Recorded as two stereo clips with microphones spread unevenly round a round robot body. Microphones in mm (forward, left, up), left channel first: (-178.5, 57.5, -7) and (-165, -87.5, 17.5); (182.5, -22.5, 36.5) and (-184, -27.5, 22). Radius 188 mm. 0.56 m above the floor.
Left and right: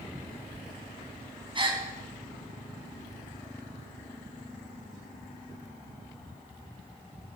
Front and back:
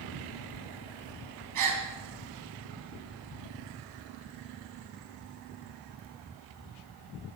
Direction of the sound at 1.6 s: 140° right.